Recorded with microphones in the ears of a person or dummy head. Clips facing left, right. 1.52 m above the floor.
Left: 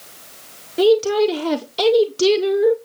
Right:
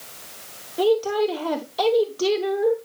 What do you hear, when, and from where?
0.8 s a woman speaking: 30° left (ahead or behind), 1.1 m